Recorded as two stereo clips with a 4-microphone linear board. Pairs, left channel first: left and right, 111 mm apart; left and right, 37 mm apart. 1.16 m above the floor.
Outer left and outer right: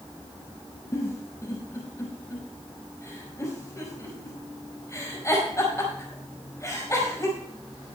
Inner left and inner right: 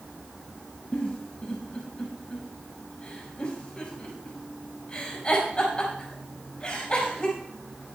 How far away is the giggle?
About 5.5 m.